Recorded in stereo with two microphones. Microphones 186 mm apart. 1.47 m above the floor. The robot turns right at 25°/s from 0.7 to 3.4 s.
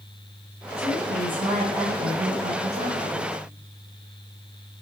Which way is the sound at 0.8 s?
165° right.